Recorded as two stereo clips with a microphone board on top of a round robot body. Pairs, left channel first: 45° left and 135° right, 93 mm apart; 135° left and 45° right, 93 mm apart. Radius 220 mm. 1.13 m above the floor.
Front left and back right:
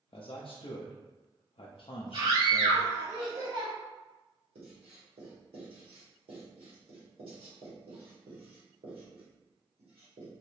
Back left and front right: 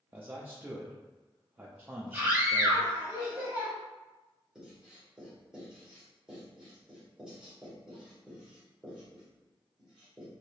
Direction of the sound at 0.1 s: 25° left.